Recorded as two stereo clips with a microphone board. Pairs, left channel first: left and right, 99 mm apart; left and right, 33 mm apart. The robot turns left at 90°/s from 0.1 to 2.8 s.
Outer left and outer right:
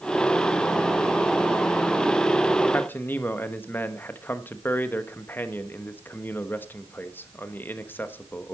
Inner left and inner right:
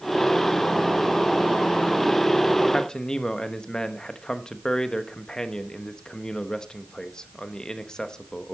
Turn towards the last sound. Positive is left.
turn(degrees=20)  # may be behind; listen again after turning